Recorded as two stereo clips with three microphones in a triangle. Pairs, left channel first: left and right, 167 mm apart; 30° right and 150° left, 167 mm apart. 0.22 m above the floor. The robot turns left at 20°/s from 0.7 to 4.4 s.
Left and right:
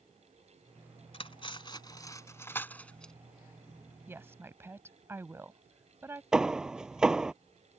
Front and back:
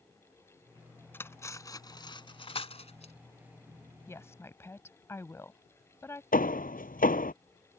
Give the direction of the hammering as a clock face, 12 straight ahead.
12 o'clock.